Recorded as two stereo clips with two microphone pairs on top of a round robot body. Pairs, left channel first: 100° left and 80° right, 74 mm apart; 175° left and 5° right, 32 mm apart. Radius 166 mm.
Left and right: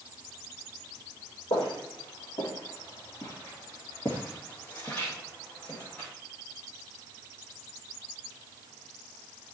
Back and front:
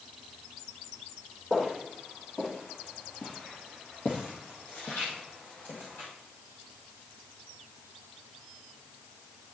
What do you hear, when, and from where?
1.5 s footsteps: 105° left, 1.3 m; by 6.1 s 175° left, 2.5 m